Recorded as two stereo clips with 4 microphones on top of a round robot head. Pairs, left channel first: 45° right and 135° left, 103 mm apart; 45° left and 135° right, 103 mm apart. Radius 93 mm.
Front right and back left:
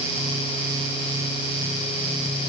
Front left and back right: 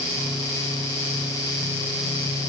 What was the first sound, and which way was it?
Only background noise.